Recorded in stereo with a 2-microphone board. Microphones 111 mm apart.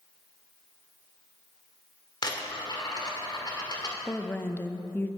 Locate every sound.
2.2 s a dropped coin: 40° left (ahead or behind), 1.7 m
4.1 s a woman speaking: 20° left (ahead or behind), 0.6 m